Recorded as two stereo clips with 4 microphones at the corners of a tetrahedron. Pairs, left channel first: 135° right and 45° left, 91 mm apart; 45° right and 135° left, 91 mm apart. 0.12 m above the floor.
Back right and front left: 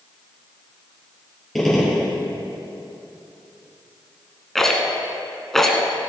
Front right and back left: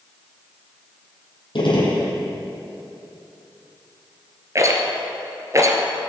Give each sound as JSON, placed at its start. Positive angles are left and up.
{"t": 1.6, "sound": "a gunshot", "azimuth_deg": -50, "distance_m": 3.0}
{"t": 4.5, "sound": "a rattle", "azimuth_deg": 140, "distance_m": 1.5}